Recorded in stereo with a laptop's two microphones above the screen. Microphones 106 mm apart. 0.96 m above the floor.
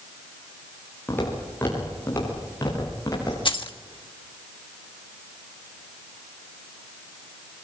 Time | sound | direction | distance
1.1 | footsteps | 20° left (ahead or behind) | 8.5 m
3.5 | keys jangling | 55° left (ahead or behind) | 1.2 m